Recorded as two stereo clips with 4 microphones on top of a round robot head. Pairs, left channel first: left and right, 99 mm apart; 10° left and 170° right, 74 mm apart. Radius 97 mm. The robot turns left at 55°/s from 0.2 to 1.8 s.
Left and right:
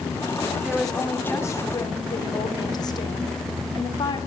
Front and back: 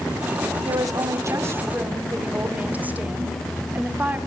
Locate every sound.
0.7 s a woman speaking: 170° right, 2 m; by 4.2 s 125° left, 2 m